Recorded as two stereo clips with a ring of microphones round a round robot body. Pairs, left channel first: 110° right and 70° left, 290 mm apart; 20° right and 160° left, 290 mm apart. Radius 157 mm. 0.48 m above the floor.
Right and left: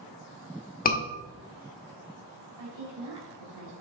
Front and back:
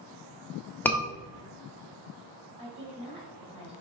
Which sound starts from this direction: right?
A scream, at 0.8 s.